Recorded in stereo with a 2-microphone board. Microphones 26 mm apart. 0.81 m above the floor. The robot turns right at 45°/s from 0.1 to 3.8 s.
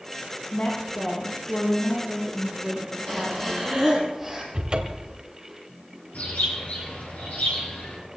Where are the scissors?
I don't hear scissors.